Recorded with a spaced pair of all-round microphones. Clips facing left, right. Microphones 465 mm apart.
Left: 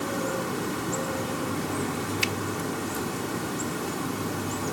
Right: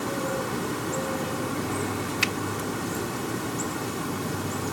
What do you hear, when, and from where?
2.2 s a finger snap: 85° right